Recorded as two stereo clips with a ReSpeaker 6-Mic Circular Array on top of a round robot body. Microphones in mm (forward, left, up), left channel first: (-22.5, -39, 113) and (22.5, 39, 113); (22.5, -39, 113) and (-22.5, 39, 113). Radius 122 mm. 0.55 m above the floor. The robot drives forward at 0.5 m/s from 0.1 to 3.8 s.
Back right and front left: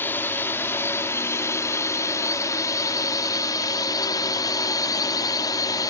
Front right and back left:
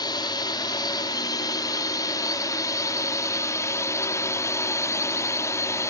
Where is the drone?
60° right; by 5.9 s 100° right.